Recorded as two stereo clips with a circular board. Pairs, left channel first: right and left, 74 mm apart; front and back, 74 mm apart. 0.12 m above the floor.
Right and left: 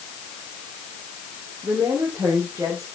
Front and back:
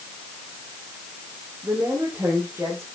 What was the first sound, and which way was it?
A woman speaking, 120° left.